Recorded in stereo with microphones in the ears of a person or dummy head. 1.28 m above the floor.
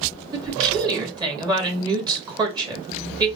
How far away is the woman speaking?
About 2 m.